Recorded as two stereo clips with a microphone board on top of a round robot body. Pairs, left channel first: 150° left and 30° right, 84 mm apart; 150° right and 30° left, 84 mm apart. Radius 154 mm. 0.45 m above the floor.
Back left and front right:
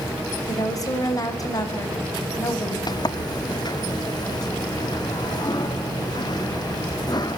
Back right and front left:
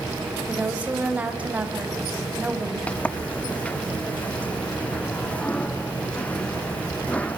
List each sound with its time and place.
0.5 s a woman speaking: 105° left, 4.5 m
2.9 s a sliding door: 140° left, 1.4 m